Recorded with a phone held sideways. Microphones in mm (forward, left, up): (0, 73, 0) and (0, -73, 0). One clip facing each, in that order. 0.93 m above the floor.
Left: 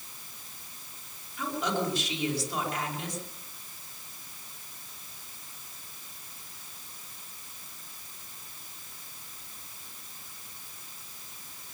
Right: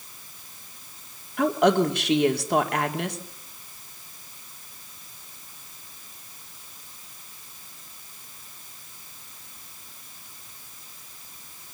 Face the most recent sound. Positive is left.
turn(degrees=-70)  # may be behind; listen again after turning